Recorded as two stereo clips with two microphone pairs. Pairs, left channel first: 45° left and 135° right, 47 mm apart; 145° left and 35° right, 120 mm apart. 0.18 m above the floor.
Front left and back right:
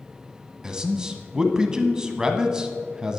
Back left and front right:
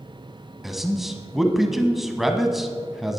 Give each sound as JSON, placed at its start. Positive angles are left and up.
{"t": 0.6, "sound": "a man speaking", "azimuth_deg": -115, "distance_m": 1.1}